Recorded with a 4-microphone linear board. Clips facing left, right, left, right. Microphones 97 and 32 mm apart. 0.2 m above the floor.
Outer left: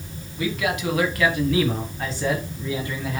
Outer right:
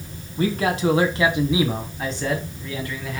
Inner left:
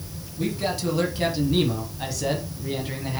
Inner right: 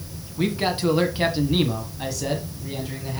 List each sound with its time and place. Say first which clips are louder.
0.4 s a man speaking: outer right 4 dB, inner right 3 dB; 40° right (ahead or behind), 1.6 m; by 3.2 s 25° left (ahead or behind), 1.6 m